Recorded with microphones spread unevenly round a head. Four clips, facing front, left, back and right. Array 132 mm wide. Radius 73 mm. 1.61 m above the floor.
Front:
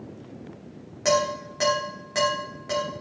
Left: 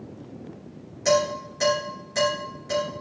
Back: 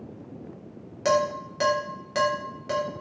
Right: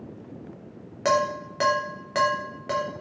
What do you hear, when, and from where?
1.1 s dishes clattering: 80° right, 3.5 m